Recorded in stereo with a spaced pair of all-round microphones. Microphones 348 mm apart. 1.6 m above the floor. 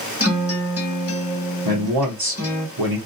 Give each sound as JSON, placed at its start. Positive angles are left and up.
{"t": 0.2, "sound": "a guitar", "side_deg": 40, "distance_m": 1.3}
{"t": 1.6, "sound": "a man speaking", "side_deg": -85, "distance_m": 0.9}